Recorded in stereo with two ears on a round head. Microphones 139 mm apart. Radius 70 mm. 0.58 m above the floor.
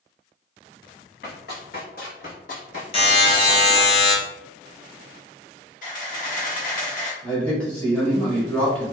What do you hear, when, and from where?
1.2 s running footsteps: 70° left (ahead or behind), 1.6 m; by 3.9 s 20° left (ahead or behind), 0.9 m
2.9 s a buzzer: 35° left (ahead or behind), 1.0 m
5.8 s a camera shutter: 55° left (ahead or behind), 1.2 m
7.2 s a man speaking: 10° left (ahead or behind), 1.3 m